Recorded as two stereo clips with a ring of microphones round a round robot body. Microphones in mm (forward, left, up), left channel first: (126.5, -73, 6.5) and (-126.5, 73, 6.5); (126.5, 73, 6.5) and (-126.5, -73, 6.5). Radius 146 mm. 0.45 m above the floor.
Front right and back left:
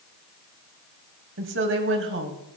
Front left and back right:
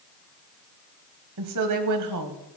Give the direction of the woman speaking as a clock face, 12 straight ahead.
6 o'clock.